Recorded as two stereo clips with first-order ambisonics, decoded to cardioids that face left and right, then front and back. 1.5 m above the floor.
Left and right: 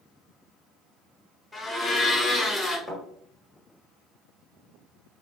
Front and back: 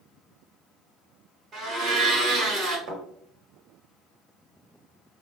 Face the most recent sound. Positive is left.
turn(degrees=-175)